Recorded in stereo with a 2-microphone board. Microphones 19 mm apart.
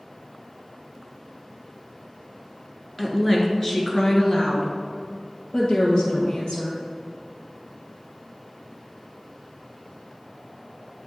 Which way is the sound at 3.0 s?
10° left (ahead or behind).